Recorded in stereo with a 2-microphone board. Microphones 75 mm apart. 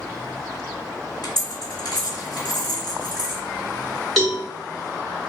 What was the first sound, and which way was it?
A dropped coin, 60° left (ahead or behind).